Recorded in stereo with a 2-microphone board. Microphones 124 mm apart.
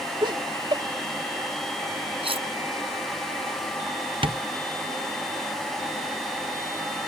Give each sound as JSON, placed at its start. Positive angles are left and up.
{"t": 0.2, "sound": "laughter", "side_deg": -40}
{"t": 2.2, "sound": "cutlery clinking", "side_deg": -45}
{"t": 4.2, "sound": "tapping", "side_deg": -45}